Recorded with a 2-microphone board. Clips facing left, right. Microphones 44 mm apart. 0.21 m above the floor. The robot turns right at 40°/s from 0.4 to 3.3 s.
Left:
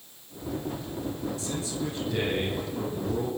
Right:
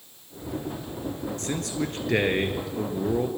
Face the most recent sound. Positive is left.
turn(degrees=-45)